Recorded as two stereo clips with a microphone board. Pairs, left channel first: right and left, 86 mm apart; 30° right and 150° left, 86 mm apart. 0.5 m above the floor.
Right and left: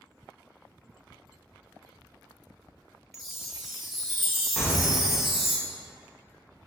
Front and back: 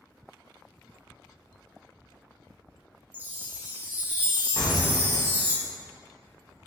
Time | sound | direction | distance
3.1 | a chime | 175° left | 0.6 m
4.6 | an explosion | 175° right | 0.8 m